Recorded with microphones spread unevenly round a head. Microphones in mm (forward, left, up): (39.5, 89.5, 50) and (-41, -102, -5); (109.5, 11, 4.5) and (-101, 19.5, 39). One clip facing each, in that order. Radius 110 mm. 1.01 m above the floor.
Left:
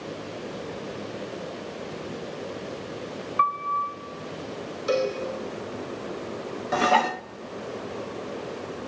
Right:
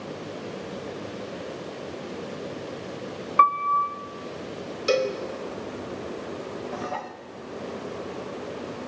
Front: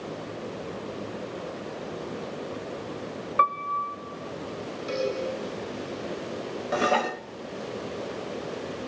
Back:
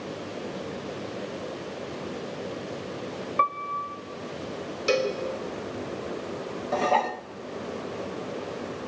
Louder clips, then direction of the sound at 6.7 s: Left 9 dB, even; 70° left.